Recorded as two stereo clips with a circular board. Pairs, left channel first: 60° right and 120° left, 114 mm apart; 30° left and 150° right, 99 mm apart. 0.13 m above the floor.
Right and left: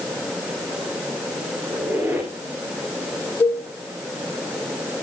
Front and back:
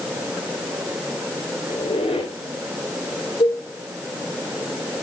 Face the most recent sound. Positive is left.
turn(degrees=10)